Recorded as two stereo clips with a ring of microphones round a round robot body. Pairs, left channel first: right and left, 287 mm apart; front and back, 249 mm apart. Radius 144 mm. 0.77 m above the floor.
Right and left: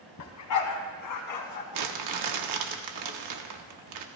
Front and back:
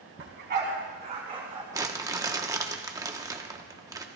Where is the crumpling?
105° left, 1.2 m.